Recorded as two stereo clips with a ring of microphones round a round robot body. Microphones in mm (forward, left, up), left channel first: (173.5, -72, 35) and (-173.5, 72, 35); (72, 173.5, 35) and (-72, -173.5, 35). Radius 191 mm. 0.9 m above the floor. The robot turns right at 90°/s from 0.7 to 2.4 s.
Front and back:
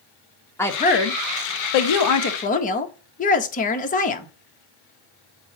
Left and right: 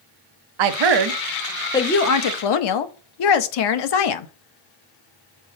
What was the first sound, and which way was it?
A woman speaking, 105° right.